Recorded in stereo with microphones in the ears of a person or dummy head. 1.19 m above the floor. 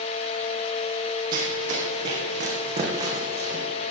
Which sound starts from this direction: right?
Running footsteps, at 1.3 s.